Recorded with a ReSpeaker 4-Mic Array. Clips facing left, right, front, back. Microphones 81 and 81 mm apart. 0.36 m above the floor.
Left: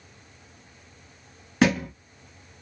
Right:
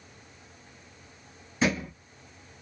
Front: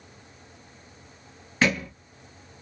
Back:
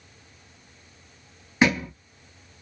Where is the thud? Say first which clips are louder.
Left 5 dB, back 3 dB; 105° left, 1.1 m.